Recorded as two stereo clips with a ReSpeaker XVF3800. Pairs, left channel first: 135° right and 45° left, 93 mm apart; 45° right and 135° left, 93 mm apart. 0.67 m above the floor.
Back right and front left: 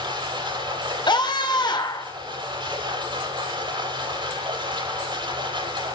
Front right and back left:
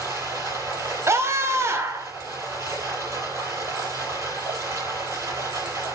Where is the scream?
165° right, 2.5 m.